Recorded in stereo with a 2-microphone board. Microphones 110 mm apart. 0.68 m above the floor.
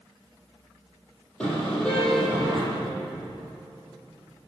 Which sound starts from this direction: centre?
A car horn, at 1.4 s.